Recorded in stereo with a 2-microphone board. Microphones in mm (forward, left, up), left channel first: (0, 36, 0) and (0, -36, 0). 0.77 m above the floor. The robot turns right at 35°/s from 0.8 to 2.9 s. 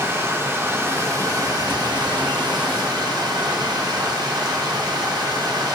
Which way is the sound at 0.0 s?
145° right.